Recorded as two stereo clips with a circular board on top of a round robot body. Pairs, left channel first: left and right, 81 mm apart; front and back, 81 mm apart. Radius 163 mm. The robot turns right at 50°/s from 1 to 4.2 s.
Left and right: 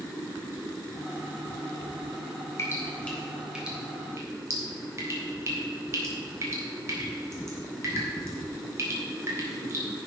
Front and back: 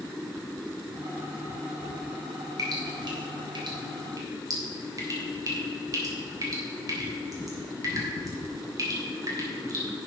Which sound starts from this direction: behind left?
Dripping, at 2.6 s.